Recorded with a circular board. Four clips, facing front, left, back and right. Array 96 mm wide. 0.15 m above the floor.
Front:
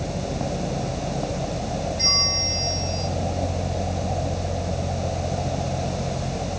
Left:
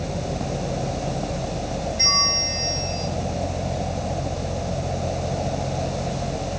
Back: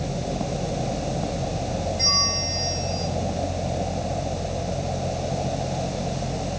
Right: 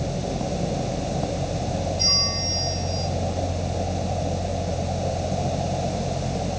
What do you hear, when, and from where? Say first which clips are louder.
2.0 s a bell: left 3 dB, back 1 dB; 95° left, 3.5 m